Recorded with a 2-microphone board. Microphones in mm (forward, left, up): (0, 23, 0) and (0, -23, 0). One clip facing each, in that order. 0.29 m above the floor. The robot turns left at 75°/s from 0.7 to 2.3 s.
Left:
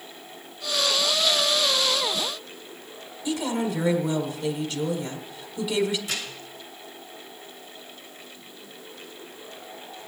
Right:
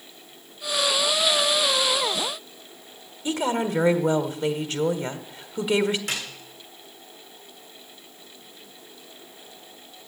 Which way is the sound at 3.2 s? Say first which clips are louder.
Right 2 dB; 45° right (ahead or behind).